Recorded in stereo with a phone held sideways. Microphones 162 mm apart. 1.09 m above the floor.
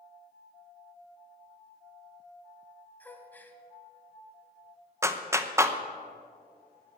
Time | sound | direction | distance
3.0 | a gasp | 10° left (ahead or behind) | 1.1 m
5.0 | a clap | 15° right (ahead or behind) | 0.7 m